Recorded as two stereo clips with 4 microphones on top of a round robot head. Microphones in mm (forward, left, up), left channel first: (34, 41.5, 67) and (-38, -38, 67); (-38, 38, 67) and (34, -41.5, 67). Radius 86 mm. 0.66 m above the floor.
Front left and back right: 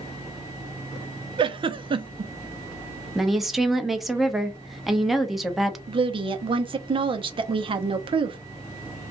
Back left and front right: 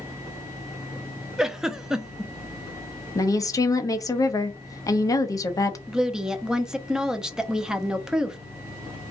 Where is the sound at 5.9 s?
130° right, 0.7 m.